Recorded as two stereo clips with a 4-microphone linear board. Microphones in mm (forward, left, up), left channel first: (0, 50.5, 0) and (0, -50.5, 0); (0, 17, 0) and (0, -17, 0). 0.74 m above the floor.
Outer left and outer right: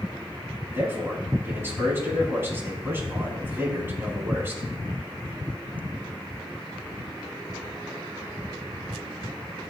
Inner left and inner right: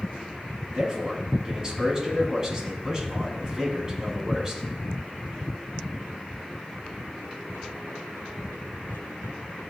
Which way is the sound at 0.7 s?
25° right (ahead or behind).